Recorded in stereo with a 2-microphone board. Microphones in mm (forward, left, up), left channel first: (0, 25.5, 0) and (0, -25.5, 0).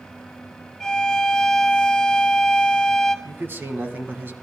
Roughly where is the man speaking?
Right.